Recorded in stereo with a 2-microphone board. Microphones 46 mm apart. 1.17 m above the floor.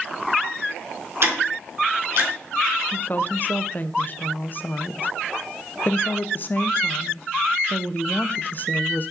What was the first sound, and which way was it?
Ticking, 55° right (ahead or behind).